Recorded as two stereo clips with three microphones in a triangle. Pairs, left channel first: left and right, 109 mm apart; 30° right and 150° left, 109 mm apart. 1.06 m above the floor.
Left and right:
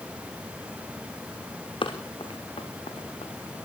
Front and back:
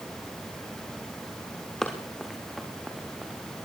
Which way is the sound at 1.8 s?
55° left.